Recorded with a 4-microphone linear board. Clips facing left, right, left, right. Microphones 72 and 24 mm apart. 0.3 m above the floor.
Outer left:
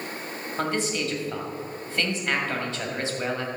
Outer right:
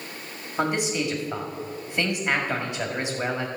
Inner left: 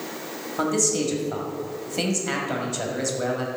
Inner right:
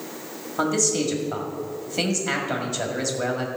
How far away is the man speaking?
About 2.0 m.